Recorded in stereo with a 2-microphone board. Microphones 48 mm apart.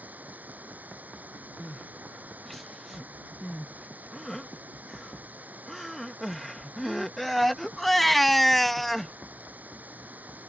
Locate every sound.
0.0 s running water: 35° right (ahead or behind)
1.6 s crying: centre (ahead or behind)